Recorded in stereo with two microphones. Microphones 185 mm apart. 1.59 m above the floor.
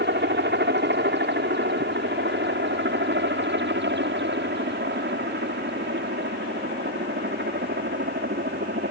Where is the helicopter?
70° right (ahead or behind).